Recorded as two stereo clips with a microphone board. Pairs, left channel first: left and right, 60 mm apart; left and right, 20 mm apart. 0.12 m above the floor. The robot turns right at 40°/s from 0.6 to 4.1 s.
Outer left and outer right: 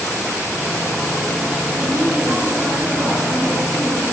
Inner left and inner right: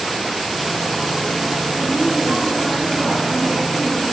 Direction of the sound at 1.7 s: 65° right.